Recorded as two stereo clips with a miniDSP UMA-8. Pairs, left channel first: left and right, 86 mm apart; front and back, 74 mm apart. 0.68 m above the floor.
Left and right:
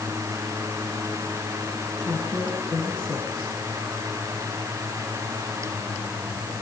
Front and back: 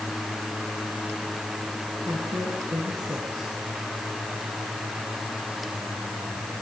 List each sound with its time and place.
2.0 s a woman speaking: 170° left, 9.5 m